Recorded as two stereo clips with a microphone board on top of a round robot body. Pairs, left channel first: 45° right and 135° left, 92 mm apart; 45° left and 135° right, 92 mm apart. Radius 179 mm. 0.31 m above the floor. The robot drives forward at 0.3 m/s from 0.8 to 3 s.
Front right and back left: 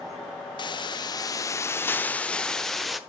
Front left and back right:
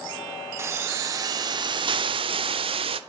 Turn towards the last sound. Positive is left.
turn(degrees=-135)